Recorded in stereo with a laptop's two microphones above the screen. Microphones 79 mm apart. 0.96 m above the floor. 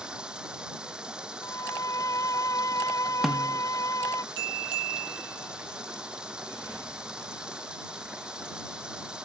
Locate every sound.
0.0 s running water: 10° right (ahead or behind)
1.4 s a violin: 45° left (ahead or behind)
3.2 s a snare drum: centre (ahead or behind)